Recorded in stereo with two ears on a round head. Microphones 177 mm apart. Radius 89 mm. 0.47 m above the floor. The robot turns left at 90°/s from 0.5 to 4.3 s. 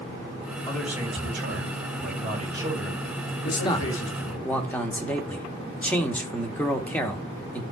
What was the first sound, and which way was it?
A man speaking, 15° left.